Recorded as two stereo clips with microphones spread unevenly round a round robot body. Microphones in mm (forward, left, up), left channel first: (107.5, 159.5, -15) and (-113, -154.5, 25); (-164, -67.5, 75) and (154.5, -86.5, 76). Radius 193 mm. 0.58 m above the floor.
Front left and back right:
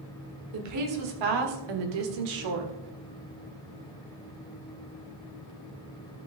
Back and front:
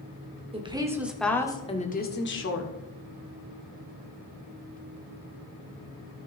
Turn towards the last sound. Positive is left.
turn(degrees=-145)